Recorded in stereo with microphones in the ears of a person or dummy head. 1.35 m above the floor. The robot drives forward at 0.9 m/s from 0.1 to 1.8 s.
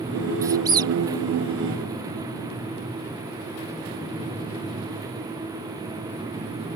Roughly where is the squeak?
Centre.